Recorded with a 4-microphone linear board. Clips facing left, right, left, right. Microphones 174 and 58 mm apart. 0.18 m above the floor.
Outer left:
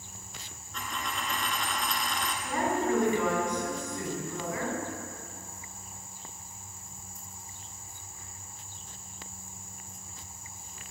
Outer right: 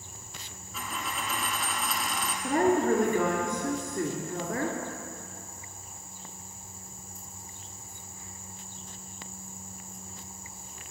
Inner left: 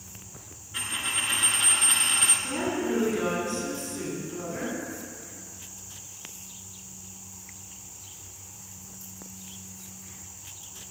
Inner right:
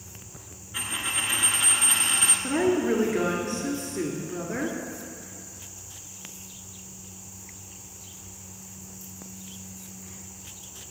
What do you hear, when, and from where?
0.7 s a dropped coin: 5° right (ahead or behind), 1.1 m
2.4 s a woman speaking: 50° right (ahead or behind), 2.5 m